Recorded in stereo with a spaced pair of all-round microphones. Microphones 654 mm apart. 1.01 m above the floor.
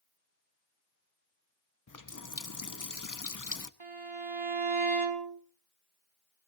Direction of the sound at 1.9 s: 30° left (ahead or behind).